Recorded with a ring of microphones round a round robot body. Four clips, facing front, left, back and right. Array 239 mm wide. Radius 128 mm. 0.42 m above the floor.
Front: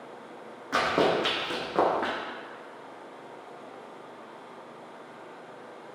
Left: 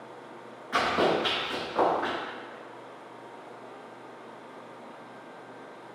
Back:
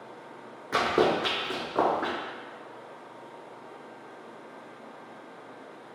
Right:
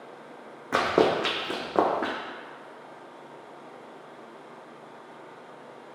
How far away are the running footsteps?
About 0.9 m.